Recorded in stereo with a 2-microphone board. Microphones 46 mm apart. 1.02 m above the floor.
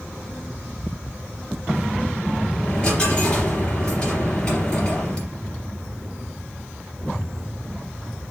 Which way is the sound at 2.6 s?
25° left (ahead or behind).